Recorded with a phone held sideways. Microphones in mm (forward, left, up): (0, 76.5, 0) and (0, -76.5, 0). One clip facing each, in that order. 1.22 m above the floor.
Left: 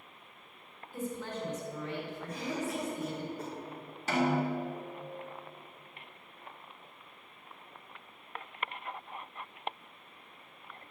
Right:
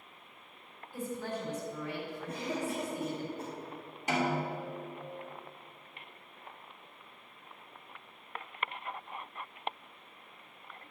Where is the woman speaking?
10° right (ahead or behind), 3.5 m.